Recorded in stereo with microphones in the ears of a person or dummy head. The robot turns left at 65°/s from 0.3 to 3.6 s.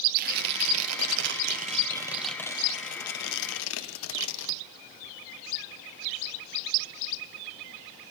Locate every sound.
0.1 s tearing paper: 55° right, 0.8 m; by 4.6 s 95° left, 0.8 m